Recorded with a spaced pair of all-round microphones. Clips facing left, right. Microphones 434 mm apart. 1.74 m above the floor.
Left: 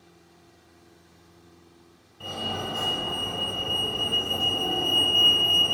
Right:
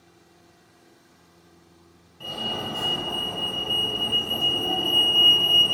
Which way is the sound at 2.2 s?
5° right (ahead or behind).